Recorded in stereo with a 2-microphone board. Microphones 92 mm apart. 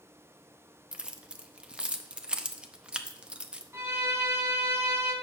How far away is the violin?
About 1.2 m.